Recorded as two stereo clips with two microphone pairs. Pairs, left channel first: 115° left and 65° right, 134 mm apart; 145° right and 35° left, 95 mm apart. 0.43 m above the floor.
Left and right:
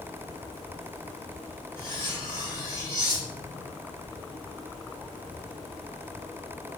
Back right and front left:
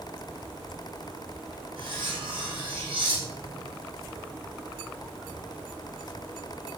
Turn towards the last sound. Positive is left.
turn(degrees=50)